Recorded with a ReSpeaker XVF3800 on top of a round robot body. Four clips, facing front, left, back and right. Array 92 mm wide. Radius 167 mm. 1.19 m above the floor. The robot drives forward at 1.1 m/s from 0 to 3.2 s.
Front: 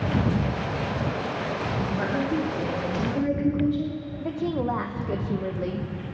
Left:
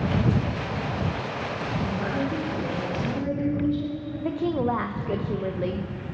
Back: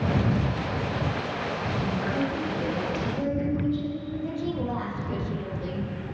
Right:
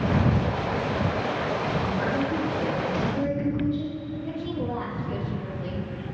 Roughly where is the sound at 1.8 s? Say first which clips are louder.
Right 2 dB, even; ahead.